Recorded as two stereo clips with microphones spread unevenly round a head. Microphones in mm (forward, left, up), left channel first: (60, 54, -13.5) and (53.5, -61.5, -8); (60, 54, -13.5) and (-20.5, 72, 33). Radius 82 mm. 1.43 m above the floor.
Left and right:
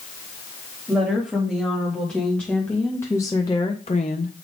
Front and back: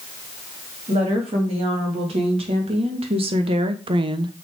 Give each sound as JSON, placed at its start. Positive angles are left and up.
{"t": 0.9, "sound": "a woman speaking", "azimuth_deg": 175, "distance_m": 3.0}